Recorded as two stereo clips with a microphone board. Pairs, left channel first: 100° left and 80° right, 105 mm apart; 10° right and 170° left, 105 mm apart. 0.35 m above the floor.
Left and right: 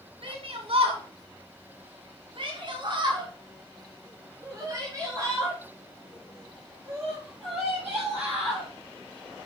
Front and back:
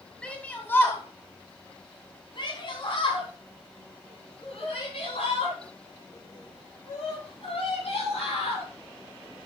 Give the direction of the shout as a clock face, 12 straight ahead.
3 o'clock.